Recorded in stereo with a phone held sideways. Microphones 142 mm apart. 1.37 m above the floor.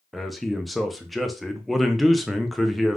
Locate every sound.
0.1 s a man speaking: centre (ahead or behind), 0.5 m